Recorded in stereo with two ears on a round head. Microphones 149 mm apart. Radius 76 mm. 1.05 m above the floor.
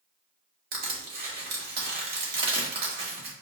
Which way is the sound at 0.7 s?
60° right (ahead or behind).